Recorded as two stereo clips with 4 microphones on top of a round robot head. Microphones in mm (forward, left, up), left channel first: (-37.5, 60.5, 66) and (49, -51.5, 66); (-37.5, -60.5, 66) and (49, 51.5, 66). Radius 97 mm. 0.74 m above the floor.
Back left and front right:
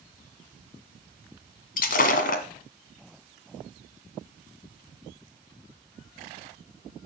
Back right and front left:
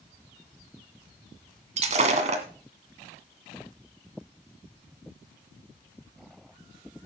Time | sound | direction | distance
1.8 | breaking glass | 100° left | 1.8 m